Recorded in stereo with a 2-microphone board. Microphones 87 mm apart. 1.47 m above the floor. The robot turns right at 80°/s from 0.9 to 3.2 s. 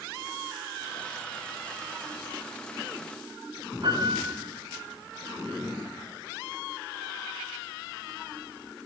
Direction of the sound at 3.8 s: 60° right (ahead or behind).